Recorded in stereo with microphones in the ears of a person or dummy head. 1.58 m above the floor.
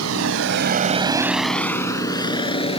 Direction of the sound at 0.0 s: 80° right.